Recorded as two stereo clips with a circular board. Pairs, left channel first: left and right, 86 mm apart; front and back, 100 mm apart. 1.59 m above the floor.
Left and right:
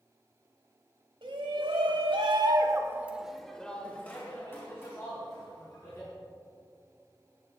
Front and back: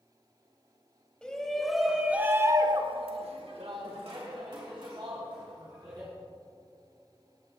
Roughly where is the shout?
Right.